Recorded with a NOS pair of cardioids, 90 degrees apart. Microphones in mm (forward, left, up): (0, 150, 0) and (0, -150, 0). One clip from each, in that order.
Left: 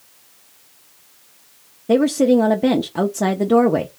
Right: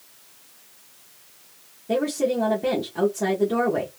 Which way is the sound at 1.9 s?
40° left.